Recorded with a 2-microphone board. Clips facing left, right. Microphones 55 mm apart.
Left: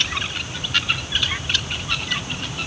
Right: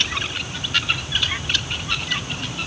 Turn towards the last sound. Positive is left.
No sound to turn to.